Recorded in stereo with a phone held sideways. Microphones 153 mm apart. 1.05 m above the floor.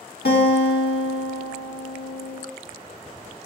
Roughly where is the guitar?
Left.